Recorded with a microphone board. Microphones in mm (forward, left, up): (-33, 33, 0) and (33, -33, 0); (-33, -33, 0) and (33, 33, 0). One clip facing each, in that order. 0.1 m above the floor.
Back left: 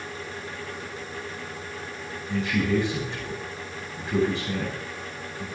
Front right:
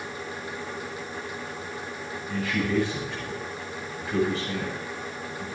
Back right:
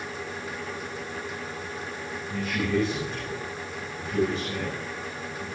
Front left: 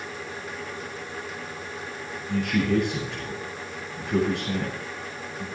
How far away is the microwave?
I don't hear a microwave.